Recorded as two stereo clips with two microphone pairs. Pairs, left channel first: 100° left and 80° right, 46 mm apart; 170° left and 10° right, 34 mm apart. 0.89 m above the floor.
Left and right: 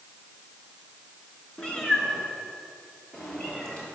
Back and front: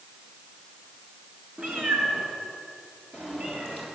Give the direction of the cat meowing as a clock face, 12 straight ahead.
11 o'clock.